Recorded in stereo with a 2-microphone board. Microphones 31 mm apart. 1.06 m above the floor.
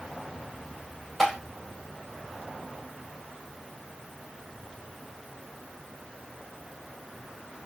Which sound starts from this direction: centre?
Tapping, at 1.2 s.